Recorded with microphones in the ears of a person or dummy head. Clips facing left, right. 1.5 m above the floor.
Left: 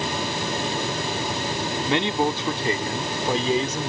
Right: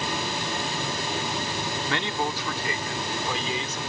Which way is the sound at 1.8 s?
15° left (ahead or behind).